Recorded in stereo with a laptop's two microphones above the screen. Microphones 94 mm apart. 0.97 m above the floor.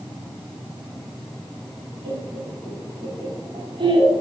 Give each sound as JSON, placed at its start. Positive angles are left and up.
{"t": 2.0, "sound": "laughter", "side_deg": -75, "distance_m": 7.5}